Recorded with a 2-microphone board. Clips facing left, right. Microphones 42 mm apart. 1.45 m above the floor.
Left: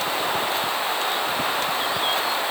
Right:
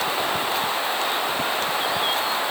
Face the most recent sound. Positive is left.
No sound to turn to.